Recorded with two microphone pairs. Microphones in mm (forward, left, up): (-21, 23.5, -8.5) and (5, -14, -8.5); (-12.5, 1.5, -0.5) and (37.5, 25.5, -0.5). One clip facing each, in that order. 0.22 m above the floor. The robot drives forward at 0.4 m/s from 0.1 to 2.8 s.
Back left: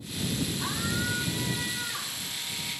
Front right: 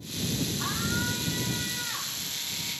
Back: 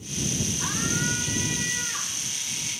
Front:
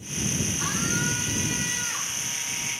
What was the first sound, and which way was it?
A scream, 10° right.